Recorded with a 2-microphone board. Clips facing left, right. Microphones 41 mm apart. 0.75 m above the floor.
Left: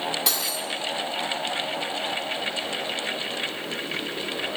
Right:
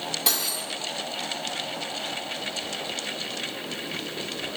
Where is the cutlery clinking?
Centre (ahead or behind), 0.8 m.